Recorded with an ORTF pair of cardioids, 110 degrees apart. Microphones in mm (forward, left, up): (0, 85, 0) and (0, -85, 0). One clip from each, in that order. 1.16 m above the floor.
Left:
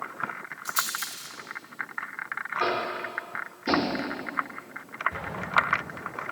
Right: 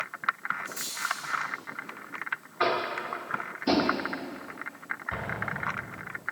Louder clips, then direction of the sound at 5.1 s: Left 7 dB; 55° right.